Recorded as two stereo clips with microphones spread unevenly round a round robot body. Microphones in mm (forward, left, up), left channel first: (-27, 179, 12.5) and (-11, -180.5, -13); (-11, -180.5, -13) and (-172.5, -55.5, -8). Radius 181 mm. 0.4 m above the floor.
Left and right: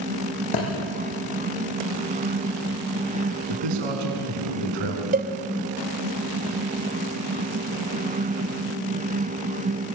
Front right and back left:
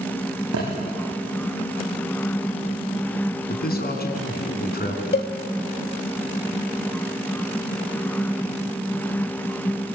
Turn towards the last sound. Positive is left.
turn(degrees=-35)